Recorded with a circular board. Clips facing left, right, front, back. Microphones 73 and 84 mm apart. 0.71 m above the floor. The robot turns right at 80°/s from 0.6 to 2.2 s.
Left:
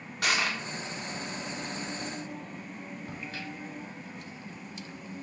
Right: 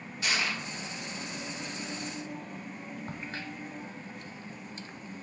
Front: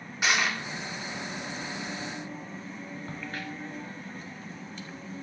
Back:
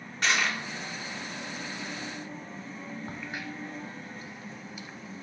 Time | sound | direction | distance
0.2 | crushing | 85° left | 1.4 m
3.1 | a crack | 105° right | 0.6 m